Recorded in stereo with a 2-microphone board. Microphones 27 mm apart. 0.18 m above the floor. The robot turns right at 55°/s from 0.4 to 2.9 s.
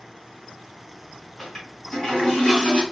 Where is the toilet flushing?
10° left, 1.7 m; by 2.8 s 90° left, 1.7 m.